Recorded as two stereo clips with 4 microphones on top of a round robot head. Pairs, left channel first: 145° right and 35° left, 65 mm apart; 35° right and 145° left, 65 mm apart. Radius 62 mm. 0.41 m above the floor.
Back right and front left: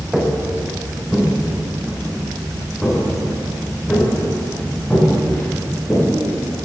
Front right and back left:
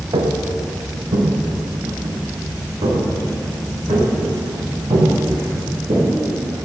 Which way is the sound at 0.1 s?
120° left.